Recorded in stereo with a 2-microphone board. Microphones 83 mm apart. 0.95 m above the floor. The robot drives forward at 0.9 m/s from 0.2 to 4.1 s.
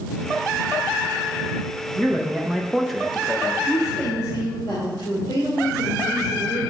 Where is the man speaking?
Centre (ahead or behind), 1.0 m; by 3.5 s 5° left (ahead or behind), 0.9 m.